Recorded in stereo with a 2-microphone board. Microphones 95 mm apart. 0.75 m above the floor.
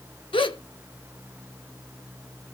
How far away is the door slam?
No door slam in this recording.